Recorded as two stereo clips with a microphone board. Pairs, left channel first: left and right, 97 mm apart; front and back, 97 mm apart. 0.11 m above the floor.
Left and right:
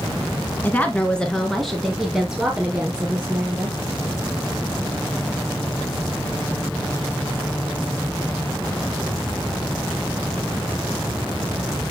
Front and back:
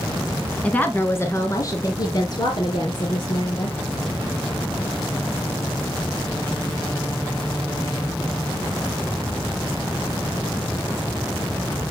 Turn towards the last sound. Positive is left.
turn(degrees=-20)